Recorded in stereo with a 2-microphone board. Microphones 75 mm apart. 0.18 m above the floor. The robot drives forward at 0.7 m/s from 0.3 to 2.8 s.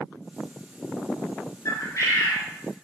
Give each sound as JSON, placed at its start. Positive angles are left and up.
{"t": 1.6, "sound": "a bird", "side_deg": 50, "distance_m": 1.2}